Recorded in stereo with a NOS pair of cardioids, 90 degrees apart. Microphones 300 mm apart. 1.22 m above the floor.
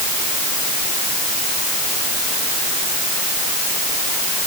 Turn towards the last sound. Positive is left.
No sound to turn to.